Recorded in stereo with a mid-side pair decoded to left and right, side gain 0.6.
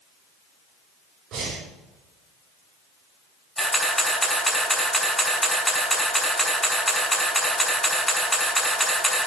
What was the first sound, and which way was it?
Breathing, 60° right.